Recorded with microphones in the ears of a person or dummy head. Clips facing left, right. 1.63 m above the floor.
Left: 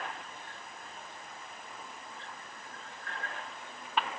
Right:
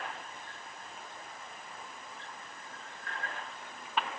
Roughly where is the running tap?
No running tap in this recording.